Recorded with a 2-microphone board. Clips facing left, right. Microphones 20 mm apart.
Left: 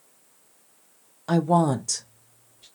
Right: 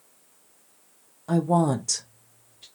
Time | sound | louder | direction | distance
1.3 | a woman speaking | left 1 dB | 50° left (ahead or behind) | 0.5 m